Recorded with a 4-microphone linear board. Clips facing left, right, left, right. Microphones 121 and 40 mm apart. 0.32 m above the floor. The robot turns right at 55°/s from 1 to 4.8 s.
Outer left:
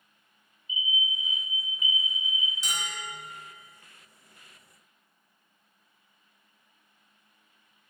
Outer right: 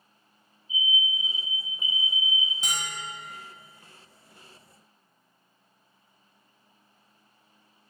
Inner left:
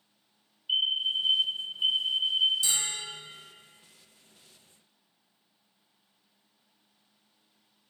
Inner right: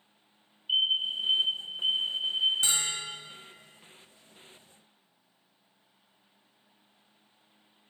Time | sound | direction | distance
0.7 | a fire alarm | 5° left | 2 m
2.6 | a bell | 50° right (ahead or behind) | 2 m